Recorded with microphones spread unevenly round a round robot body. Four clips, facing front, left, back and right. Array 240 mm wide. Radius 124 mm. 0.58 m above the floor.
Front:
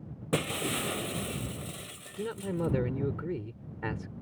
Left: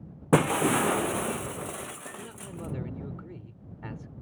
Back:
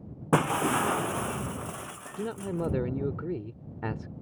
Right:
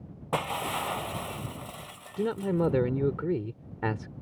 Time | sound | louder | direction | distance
0.3 | breaking glass | left 8 dB, back 7 dB | 120° left | ?
2.2 | a man speaking | right 14 dB, back 1 dB | 90° right | ?